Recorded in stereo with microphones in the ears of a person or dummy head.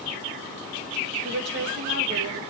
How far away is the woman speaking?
About 1.8 m.